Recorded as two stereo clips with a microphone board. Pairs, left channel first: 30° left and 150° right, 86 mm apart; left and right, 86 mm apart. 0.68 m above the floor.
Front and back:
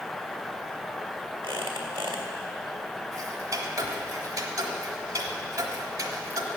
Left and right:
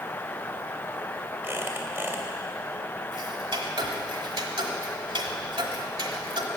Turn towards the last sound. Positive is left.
turn(degrees=-105)